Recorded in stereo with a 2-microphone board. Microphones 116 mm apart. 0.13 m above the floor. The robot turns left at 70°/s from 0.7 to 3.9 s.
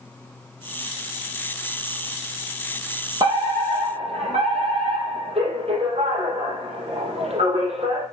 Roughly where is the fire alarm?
Ahead right.